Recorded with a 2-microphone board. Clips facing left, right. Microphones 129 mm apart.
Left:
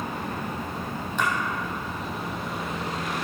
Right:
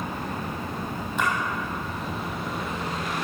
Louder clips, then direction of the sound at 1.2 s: Right 1 dB; centre (ahead or behind).